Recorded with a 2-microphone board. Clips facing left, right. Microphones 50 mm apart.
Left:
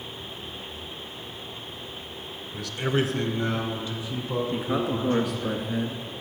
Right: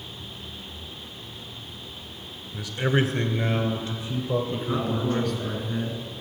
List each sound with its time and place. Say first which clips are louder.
2.5 s a man speaking: right 2 dB; 10° right (ahead or behind), 1.1 m; by 5.5 s 70° right (ahead or behind), 5 m
4.5 s a man speaking: left 1 dB; 5° left (ahead or behind), 1.7 m